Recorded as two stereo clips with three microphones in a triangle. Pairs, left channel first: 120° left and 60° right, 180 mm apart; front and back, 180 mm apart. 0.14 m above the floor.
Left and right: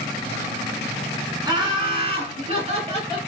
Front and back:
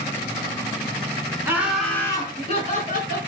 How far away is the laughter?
About 1.3 m.